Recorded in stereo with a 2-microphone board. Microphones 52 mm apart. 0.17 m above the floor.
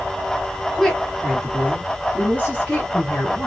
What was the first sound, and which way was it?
A woman speaking, 5° left (ahead or behind).